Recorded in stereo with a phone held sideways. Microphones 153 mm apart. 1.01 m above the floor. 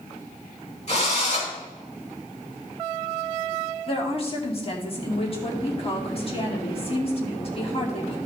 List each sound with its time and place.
0.9 s a drill: 50° left (ahead or behind), 5.5 m
3.9 s a woman speaking: 40° left (ahead or behind), 2.5 m